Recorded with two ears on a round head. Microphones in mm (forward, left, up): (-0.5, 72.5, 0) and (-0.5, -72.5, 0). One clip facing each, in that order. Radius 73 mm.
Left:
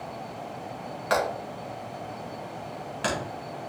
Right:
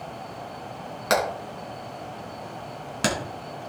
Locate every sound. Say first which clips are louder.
1.1 s hammering: right 2 dB; 55° right (ahead or behind), 3.5 m